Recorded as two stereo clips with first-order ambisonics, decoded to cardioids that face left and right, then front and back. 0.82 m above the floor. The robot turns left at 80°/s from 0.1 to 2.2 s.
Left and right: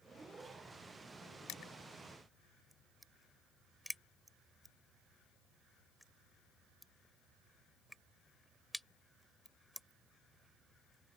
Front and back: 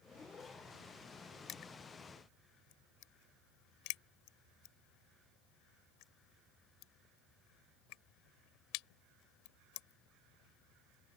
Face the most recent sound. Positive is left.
turn(degrees=0)